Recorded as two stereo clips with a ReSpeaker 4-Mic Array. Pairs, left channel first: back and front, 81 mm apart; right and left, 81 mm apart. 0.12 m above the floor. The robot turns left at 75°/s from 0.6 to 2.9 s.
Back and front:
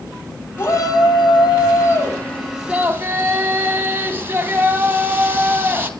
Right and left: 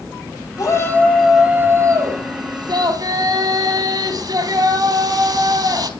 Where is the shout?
125° right, 3 m; by 5.9 s 65° left, 3 m.